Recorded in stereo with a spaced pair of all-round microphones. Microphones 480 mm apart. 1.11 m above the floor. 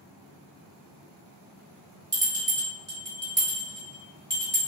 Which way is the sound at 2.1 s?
5° right (ahead or behind).